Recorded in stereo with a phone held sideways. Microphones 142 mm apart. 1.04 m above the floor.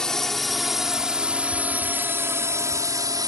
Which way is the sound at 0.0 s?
5° left (ahead or behind).